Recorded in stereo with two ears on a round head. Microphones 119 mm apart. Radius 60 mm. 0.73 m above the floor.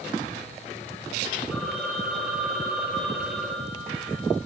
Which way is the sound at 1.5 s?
5° right (ahead or behind).